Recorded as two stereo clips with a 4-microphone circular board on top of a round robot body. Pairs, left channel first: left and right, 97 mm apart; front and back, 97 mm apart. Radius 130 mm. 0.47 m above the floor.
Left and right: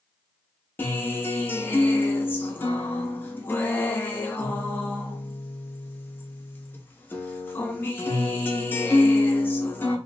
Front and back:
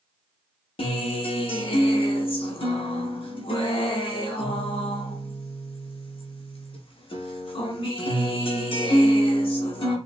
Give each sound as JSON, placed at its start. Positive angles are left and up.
{"t": 0.8, "sound": "a guitar", "azimuth_deg": 20, "distance_m": 0.6}